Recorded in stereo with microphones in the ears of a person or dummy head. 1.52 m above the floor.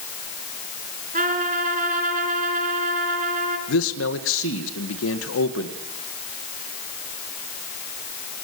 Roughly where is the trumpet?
Right.